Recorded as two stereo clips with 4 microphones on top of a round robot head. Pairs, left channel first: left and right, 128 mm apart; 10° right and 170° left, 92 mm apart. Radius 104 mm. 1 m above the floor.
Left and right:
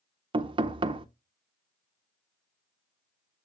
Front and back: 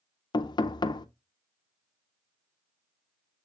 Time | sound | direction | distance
0.3 | knocking | 45° right | 0.5 m